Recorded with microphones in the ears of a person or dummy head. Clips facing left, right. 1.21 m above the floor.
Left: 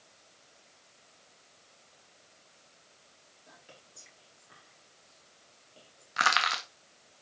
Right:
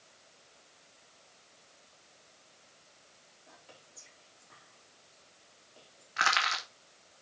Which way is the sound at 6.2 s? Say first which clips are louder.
Left 2 dB; 40° left (ahead or behind).